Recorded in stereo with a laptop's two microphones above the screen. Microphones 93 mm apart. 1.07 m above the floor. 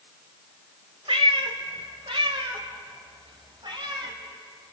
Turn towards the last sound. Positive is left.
turn(degrees=-55)  # may be behind; listen again after turning